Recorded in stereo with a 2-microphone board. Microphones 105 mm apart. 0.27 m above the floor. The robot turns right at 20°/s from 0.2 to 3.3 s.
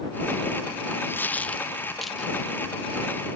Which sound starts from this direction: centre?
A dropped coin, at 1.1 s.